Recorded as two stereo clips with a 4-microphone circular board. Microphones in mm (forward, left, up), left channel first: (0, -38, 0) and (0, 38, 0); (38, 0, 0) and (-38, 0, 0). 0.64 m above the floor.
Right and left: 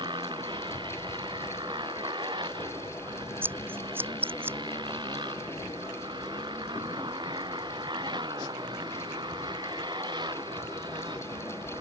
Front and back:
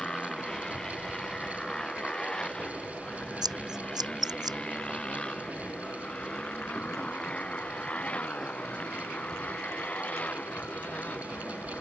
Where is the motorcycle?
80° left; by 11.8 s 70° left.